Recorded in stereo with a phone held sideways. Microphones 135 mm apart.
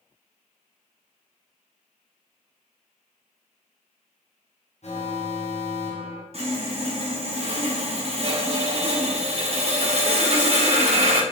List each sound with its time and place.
4.8 s an alarm: 55° left (ahead or behind), 1.2 m
6.3 s sawing: 50° right (ahead or behind), 1.1 m